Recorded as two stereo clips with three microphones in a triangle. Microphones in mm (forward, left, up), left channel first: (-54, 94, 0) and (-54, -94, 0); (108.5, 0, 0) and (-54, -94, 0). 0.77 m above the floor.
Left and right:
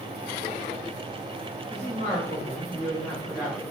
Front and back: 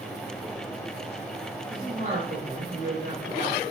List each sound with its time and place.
1.7 s a woman speaking: 120° right, 2.0 m; by 3.6 s 175° right, 1.5 m